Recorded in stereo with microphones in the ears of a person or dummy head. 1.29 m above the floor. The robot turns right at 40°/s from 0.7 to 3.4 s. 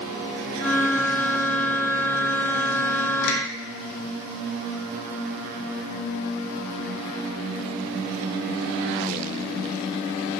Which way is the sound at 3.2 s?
70° left (ahead or behind).